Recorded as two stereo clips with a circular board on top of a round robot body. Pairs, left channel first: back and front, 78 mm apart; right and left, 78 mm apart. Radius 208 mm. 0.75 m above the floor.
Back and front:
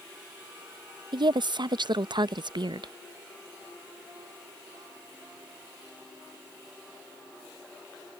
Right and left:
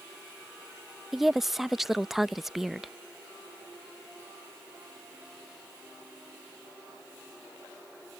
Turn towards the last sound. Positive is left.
turn(degrees=5)